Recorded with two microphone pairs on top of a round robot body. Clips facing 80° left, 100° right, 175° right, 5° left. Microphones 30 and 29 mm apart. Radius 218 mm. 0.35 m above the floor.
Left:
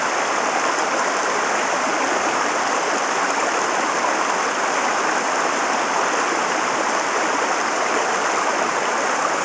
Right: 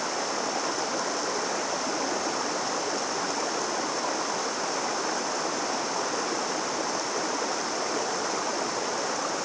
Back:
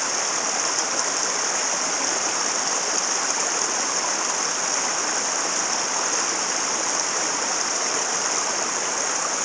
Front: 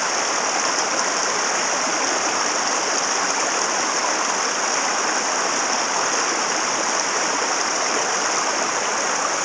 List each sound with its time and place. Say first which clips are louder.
0.0 s running water: left 9 dB, front 4 dB; 80° left